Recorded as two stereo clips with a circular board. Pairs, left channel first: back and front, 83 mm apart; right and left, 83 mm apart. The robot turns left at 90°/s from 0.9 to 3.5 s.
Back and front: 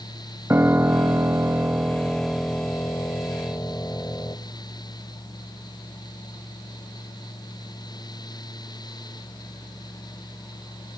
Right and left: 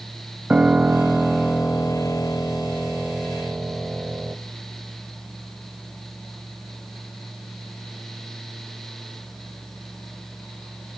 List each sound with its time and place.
0.5 s a piano: 25° left, 1.0 m; by 4.4 s 155° left, 1.0 m